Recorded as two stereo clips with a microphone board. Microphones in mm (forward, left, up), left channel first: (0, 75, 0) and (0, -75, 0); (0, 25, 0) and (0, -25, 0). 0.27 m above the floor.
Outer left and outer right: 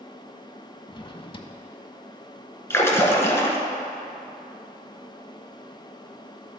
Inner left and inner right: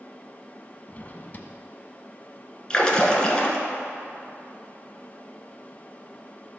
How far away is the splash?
About 1.2 m.